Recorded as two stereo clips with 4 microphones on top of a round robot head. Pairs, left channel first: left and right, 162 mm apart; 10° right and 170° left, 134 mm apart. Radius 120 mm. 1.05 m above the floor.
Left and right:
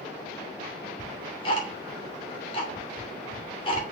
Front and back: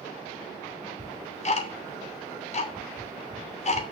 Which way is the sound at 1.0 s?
25° left.